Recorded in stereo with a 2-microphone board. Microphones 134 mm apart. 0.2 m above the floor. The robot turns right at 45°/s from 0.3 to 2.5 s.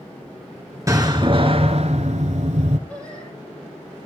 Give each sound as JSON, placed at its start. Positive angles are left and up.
{"t": 0.9, "sound": "a door slam", "azimuth_deg": -150, "distance_m": 2.0}
{"t": 2.9, "sound": "singing", "side_deg": 10, "distance_m": 7.5}